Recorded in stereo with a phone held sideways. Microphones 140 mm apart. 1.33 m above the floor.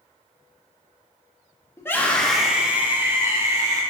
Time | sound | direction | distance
1.8 | a scream | 20° left (ahead or behind) | 1.7 m